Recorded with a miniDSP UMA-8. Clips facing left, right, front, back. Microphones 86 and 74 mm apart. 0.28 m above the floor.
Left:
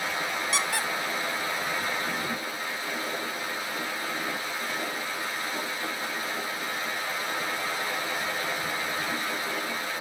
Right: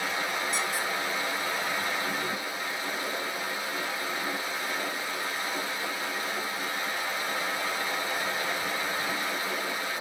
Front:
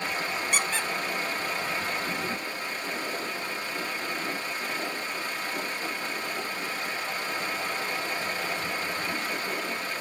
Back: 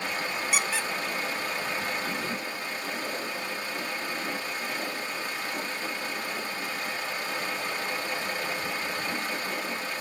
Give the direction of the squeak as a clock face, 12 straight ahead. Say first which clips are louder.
Left 1 dB, even; 9 o'clock.